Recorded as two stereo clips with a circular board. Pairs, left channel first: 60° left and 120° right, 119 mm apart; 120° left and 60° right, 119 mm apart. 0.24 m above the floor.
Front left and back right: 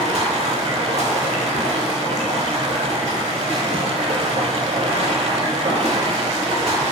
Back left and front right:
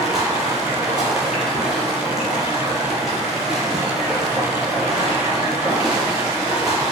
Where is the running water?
145° right, 0.9 m.